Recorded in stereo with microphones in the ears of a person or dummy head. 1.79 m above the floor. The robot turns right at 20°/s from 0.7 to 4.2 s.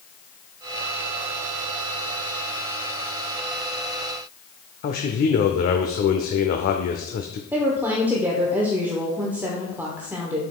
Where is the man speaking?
50° left (ahead or behind), 0.6 m.